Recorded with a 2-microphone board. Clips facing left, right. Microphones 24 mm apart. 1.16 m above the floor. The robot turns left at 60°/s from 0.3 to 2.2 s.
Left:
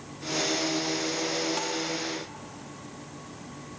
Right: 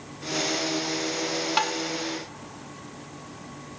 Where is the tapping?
50° right (ahead or behind), 1.8 m; by 1.7 s 60° right (ahead or behind), 1.8 m.